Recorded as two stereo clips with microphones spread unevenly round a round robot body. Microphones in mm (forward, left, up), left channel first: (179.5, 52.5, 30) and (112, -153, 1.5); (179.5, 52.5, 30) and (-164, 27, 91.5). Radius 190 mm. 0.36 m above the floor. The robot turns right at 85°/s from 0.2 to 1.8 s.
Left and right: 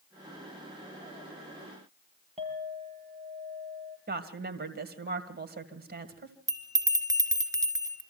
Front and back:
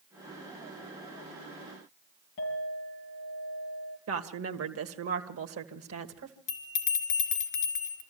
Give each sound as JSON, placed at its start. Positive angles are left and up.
{"t": 2.4, "sound": "a clink", "azimuth_deg": -50, "distance_m": 6.0}
{"t": 4.1, "sound": "a woman speaking", "azimuth_deg": -130, "distance_m": 1.9}
{"t": 6.5, "sound": "a bell", "azimuth_deg": -35, "distance_m": 2.5}